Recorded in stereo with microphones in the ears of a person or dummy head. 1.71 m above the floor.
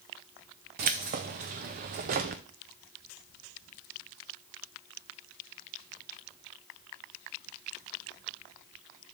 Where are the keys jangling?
30° right (ahead or behind), 0.6 m.